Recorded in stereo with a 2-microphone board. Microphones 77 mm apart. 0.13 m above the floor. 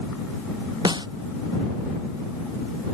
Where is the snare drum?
65° right (ahead or behind).